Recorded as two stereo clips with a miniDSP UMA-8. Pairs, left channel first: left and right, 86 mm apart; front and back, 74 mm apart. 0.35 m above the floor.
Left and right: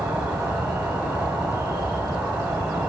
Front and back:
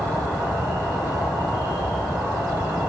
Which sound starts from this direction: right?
An insect, at 0.0 s.